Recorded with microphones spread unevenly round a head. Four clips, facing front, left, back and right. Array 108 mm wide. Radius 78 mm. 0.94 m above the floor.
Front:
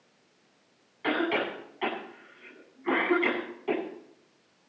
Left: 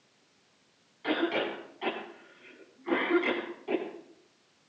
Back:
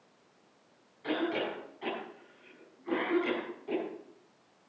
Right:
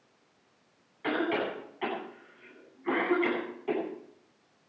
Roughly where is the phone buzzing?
I don't hear a phone buzzing.